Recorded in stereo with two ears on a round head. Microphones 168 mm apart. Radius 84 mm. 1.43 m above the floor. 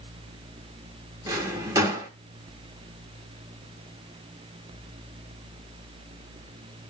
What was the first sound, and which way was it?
A drawer, 20° right (ahead or behind).